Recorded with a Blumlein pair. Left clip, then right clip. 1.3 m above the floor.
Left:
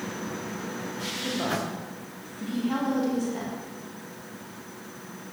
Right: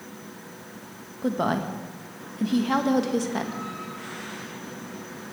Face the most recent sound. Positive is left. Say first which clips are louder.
# right 5 dB
turn(degrees=-65)